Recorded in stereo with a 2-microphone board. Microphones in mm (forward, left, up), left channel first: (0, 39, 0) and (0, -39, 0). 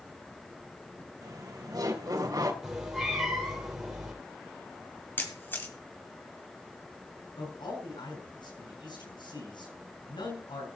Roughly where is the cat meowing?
Centre.